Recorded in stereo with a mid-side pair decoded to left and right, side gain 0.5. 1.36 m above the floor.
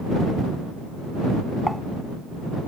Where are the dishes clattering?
Straight ahead.